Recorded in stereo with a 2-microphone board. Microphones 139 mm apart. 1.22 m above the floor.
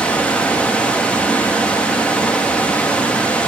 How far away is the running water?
About 0.8 m.